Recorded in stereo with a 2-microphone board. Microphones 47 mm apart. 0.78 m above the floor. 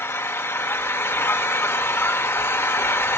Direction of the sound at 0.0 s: 55° left (ahead or behind).